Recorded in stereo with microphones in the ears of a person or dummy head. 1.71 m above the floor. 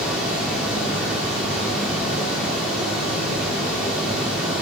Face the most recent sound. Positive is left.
turn(degrees=-5)  # may be behind; listen again after turning